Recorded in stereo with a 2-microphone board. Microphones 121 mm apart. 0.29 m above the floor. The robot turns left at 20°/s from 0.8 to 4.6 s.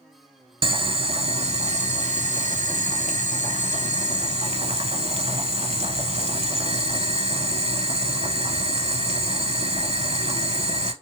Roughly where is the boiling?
Ahead right.